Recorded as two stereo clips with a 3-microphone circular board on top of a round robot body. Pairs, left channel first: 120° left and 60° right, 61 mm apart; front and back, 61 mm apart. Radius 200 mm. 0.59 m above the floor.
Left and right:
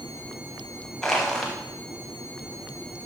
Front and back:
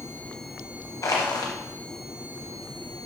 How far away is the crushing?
About 0.9 m.